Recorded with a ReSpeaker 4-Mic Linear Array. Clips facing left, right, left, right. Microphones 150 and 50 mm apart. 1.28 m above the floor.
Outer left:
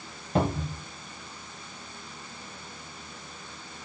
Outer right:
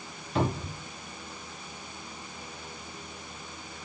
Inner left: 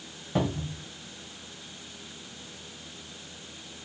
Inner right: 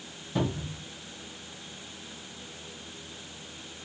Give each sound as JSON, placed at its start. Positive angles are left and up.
{"t": 0.3, "sound": "a cupboard door", "side_deg": 45, "distance_m": 1.1}